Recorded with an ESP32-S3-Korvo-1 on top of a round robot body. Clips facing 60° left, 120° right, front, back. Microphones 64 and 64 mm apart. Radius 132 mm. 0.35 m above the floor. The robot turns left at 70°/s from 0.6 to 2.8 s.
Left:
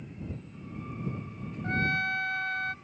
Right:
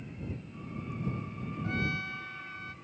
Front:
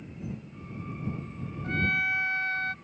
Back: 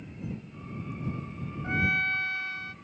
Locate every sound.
1.6 s a trumpet: 110° left; by 2.7 s 35° left